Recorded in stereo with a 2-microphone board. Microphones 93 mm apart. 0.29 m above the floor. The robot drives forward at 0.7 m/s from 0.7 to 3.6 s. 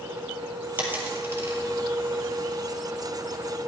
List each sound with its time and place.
0.8 s a dropped coin: 20° right (ahead or behind), 2 m; by 1.6 s 25° right (ahead or behind), 1.5 m